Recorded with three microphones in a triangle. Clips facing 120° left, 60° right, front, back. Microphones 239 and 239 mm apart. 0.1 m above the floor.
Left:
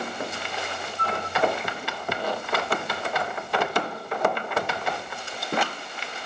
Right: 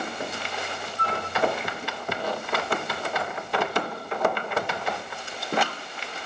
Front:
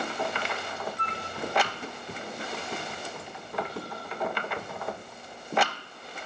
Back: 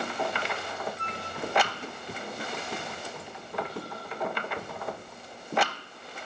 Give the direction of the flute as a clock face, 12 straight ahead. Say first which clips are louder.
Left 1 dB, front 1 dB; 1 o'clock.